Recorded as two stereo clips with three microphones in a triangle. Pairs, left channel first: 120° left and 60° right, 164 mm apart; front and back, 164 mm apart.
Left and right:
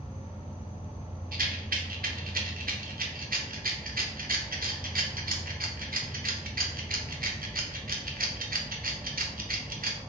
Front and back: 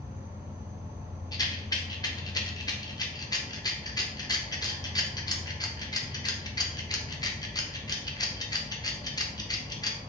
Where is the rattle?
65° right, 0.6 m.